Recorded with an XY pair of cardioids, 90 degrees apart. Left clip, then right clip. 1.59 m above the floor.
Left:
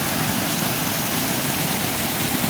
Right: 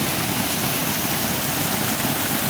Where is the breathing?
I don't hear breathing.